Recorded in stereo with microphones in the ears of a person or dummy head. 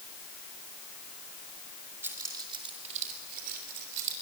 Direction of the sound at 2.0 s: 15° right (ahead or behind).